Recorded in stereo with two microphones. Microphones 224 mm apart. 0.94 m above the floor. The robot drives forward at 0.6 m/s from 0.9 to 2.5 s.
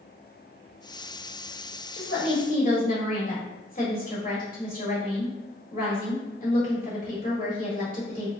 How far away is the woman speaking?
About 1.6 m.